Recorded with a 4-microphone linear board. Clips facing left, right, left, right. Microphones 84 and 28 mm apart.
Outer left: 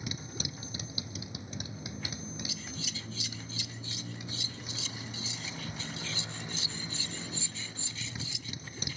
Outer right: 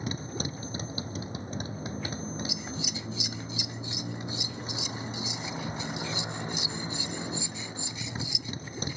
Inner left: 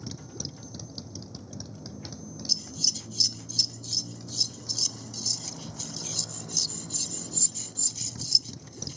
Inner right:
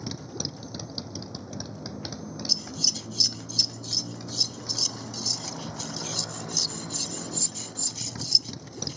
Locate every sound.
0.0 s a motorcycle: 40° right (ahead or behind)
2.5 s scissors: 20° right (ahead or behind)